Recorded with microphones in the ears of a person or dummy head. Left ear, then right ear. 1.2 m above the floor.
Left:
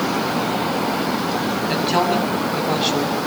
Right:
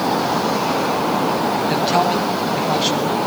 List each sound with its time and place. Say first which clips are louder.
1.7 s a man speaking: even; 5° left (ahead or behind), 8.5 m; by 3.1 s 10° right (ahead or behind), 8 m